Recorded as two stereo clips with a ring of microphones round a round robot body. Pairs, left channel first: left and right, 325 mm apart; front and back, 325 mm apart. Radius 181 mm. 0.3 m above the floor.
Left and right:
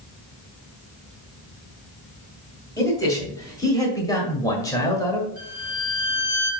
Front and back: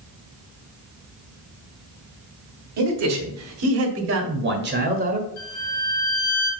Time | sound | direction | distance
2.8 | a man speaking | 170° left | 2.5 m
5.4 | a violin | 50° right | 2.5 m